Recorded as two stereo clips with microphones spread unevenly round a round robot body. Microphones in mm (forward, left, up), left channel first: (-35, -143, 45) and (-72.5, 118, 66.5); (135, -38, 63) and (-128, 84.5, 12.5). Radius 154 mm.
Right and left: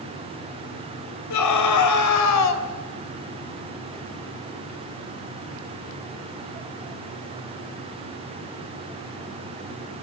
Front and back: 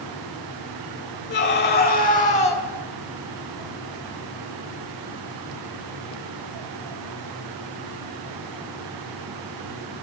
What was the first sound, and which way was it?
A scream, 80° right.